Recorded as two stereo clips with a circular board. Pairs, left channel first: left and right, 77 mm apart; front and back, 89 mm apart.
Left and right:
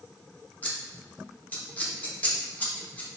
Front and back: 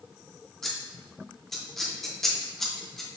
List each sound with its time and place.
0.6 s scissors: 80° left, 0.8 m